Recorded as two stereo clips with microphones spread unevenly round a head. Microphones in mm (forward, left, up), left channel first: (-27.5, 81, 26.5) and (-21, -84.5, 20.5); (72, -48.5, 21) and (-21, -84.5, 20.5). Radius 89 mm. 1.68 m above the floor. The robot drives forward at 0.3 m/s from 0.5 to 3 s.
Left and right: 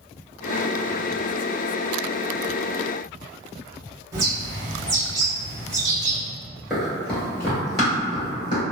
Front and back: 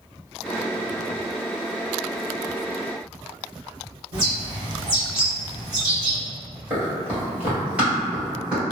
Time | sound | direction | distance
4.1 | a bird | 155° right | 1.1 m
6.7 | running footsteps | straight behind | 1.7 m